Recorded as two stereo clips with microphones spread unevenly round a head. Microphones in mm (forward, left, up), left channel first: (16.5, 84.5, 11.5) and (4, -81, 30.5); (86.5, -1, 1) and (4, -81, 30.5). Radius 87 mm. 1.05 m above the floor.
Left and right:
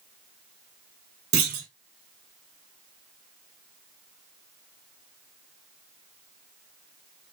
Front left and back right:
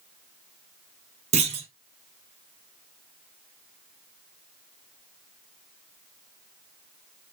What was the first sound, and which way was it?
A clunk, 125° right.